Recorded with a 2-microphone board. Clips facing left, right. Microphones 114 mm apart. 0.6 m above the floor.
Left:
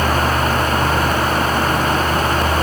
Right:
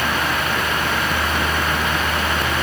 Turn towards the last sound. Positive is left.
No sound to turn to.